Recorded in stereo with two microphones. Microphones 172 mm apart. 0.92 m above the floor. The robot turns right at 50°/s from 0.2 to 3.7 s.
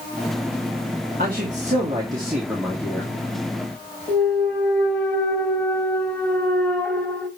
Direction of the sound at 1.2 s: 70° right.